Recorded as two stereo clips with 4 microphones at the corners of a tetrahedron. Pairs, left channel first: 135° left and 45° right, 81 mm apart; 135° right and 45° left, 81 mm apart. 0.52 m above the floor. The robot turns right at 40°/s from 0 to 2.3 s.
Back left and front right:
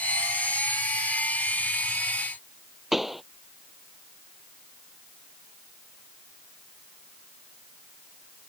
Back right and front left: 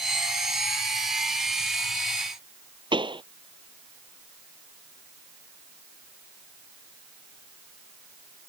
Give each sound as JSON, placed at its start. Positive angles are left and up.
{"t": 2.9, "sound": "a pop", "azimuth_deg": 40}